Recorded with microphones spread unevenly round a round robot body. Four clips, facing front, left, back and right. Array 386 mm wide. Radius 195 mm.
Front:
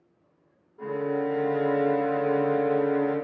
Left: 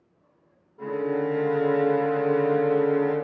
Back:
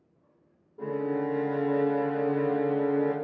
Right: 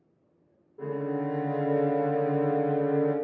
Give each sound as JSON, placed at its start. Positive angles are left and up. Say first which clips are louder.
{"t": 0.8, "sound": "a violin", "louder": "left 4 dB, front 2 dB", "azimuth_deg": -155, "distance_m": 0.6}